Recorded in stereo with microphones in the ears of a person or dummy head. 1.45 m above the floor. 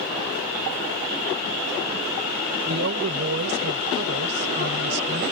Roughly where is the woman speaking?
Right.